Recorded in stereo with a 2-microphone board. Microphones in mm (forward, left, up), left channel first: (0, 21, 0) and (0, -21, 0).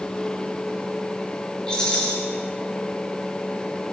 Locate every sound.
1.7 s a rattle: 20° left (ahead or behind), 4.5 m